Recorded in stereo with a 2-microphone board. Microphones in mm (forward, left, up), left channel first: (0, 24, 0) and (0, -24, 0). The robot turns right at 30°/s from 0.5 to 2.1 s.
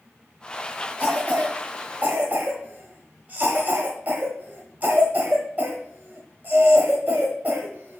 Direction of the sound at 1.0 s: 35° right (ahead or behind).